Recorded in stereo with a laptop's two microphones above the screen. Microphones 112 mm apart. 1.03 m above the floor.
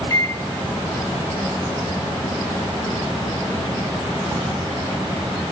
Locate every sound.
0.1 s a microwave: 25° left (ahead or behind), 1.1 m